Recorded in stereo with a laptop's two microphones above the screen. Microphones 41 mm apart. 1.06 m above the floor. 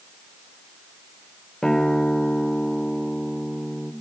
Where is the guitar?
10° left (ahead or behind), 2 m.